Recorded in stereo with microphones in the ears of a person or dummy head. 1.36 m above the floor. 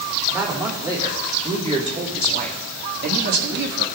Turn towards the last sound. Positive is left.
turn(degrees=-60)  # may be behind; listen again after turning